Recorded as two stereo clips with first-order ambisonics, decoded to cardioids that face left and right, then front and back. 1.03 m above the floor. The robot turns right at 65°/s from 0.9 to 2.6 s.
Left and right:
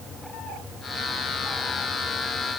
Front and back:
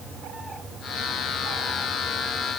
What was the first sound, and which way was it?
Only background noise.